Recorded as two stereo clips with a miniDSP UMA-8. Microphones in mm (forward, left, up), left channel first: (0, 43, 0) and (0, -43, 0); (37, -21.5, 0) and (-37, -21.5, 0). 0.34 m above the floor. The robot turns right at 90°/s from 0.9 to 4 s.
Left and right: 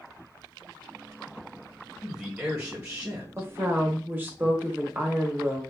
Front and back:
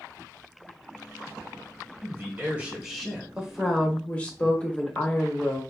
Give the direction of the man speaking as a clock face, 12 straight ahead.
7 o'clock.